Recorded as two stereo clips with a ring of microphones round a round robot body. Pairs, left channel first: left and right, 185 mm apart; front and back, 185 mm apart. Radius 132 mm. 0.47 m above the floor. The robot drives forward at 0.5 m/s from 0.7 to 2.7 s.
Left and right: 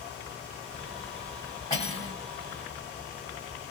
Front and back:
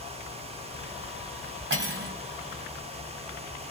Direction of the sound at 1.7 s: 165° left.